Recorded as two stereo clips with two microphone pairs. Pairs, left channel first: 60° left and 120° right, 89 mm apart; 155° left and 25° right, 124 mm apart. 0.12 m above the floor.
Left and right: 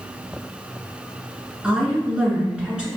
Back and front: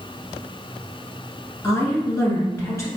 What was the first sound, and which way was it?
A woman speaking, 175° left.